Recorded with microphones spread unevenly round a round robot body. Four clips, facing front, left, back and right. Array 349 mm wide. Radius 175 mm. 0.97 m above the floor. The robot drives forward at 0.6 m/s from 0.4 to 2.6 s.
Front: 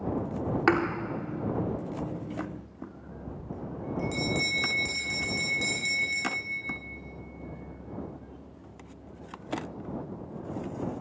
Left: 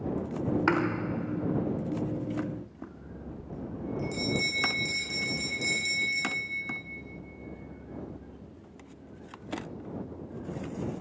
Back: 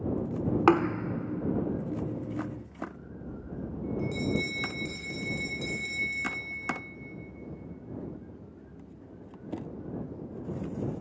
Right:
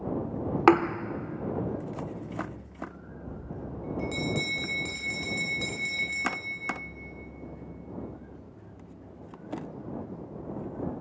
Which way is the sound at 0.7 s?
85° right.